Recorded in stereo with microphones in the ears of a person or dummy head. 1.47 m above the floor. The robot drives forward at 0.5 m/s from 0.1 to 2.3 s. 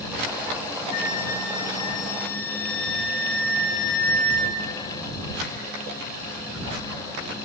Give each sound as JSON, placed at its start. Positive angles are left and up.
{"t": 0.9, "sound": "a flute", "side_deg": 50, "distance_m": 1.4}